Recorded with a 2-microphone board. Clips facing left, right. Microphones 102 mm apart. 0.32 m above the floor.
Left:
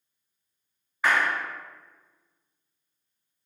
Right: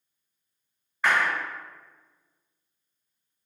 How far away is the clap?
About 1.9 m.